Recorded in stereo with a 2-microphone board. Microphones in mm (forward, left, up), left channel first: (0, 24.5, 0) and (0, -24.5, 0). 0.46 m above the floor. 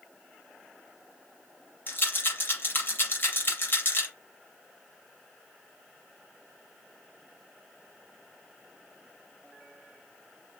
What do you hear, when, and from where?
1.9 s a rattle: 40° left (ahead or behind), 4.5 m